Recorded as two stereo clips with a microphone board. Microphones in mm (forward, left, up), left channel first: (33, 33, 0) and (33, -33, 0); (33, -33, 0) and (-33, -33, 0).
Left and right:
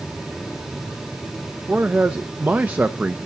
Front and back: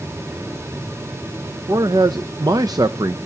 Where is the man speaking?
155° right, 0.5 m.